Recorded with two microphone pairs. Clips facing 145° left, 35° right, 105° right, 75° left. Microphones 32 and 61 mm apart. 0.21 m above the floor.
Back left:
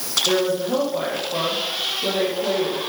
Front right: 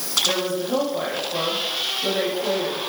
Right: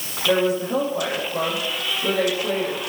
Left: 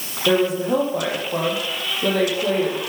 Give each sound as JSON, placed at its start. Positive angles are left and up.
{"t": 0.3, "sound": "a woman speaking", "azimuth_deg": 70, "distance_m": 6.0}